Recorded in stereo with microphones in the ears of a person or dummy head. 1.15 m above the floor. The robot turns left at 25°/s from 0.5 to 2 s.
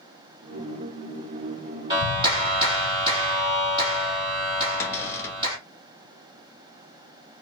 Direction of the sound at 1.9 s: 35° right (ahead or behind).